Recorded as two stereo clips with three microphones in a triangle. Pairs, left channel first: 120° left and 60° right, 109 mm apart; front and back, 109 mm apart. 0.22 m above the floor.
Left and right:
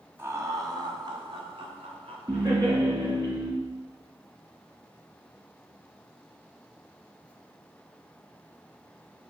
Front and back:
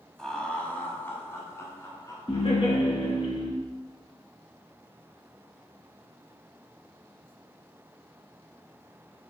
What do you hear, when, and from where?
0.2 s laughter: 80° right, 1.0 m; by 2.8 s 55° right, 2.5 m
2.3 s laughter: 15° right, 3 m